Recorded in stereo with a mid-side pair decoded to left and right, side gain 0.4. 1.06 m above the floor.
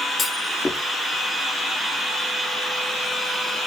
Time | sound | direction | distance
0.2 | a clunk | 30° left | 1.2 m